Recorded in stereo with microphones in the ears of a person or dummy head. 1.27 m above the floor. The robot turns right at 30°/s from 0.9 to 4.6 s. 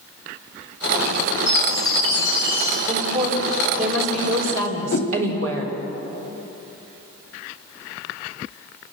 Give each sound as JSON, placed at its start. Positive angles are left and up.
{"t": 1.5, "sound": "a chime", "azimuth_deg": 75, "distance_m": 9.0}
{"t": 2.9, "sound": "a woman speaking", "azimuth_deg": -150, "distance_m": 4.5}
{"t": 4.9, "sound": "a whoosh", "side_deg": 60, "distance_m": 1.8}